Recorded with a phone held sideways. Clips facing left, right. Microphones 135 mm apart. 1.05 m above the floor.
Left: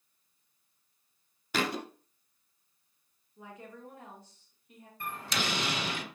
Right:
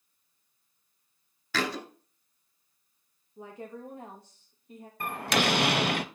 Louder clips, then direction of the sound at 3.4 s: Right 6 dB; 30° right (ahead or behind).